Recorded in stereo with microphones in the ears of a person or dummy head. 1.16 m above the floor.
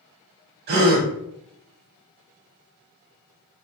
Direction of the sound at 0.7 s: 50° right (ahead or behind).